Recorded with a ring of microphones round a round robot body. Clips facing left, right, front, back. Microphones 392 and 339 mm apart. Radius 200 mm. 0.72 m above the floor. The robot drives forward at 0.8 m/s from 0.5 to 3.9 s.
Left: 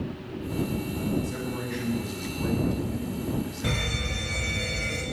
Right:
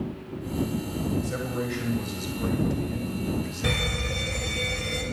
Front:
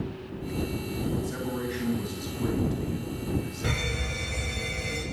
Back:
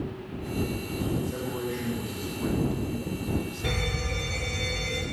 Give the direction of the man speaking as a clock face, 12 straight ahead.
2 o'clock.